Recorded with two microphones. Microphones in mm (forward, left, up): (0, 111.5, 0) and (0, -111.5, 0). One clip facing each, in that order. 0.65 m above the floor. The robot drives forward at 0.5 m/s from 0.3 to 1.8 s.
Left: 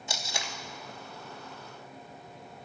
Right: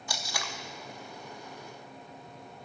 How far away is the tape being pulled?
About 0.7 m.